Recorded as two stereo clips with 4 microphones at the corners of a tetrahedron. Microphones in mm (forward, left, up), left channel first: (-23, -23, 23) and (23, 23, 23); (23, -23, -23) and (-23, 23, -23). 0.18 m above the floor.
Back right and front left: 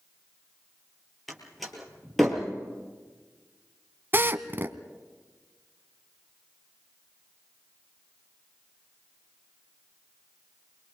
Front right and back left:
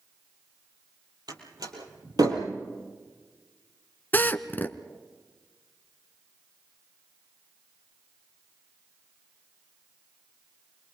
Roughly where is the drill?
Ahead.